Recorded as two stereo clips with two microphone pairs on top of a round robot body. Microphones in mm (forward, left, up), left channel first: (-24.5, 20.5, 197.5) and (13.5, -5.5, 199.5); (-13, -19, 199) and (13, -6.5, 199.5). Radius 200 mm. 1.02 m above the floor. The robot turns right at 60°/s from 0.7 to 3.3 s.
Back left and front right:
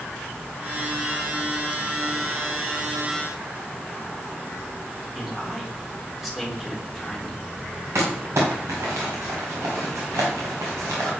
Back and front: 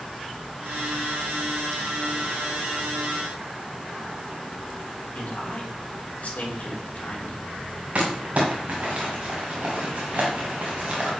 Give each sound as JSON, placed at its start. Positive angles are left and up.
{"t": 5.2, "sound": "a man speaking", "azimuth_deg": -120, "distance_m": 3.0}
{"t": 8.0, "sound": "crumpling", "azimuth_deg": -15, "distance_m": 1.5}